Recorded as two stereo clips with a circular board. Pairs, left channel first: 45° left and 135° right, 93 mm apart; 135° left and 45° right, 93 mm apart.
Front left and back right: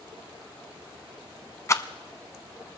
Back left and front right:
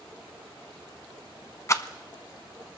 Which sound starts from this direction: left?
A rattle, at 1.7 s.